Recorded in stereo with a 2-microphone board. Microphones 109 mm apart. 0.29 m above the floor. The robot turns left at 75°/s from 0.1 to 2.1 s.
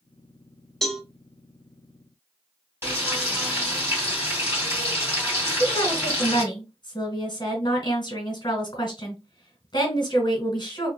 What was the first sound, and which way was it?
A cowbell, 5° left (ahead or behind).